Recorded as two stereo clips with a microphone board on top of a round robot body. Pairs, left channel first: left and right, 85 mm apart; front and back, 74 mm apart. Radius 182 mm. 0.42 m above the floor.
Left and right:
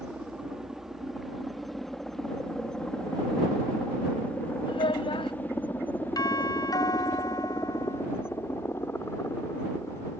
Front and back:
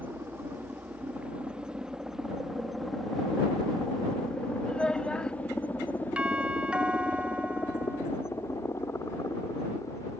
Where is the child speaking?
80° left.